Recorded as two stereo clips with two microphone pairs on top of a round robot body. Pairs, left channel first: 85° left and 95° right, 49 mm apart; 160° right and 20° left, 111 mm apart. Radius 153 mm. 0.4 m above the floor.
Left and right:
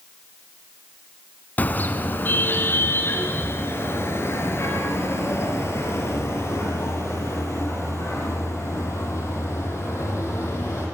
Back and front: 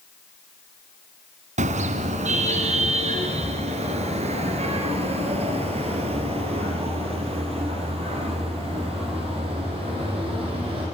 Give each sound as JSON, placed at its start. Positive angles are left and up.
{"t": 1.6, "sound": "a car horn", "azimuth_deg": 30, "distance_m": 2.5}